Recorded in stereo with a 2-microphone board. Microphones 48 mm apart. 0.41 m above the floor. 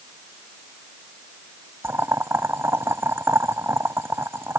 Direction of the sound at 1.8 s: 65° right (ahead or behind).